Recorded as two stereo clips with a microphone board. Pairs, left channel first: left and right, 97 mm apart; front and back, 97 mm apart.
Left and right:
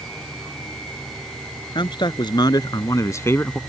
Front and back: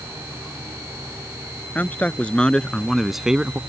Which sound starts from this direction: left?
A man speaking, at 1.8 s.